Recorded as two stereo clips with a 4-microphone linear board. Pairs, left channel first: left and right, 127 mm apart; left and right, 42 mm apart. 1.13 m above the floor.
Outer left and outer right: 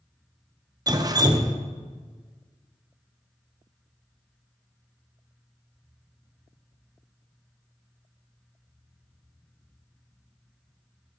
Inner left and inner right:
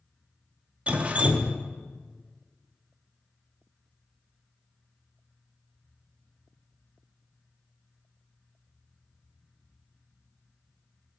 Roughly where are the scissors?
No scissors in this recording.